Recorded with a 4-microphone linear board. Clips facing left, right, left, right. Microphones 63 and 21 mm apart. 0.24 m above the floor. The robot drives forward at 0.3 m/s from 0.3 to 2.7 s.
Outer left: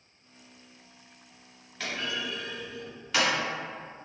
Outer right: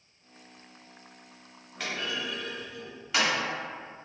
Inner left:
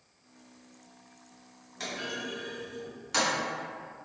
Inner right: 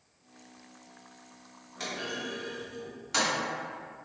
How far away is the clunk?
About 1.5 m.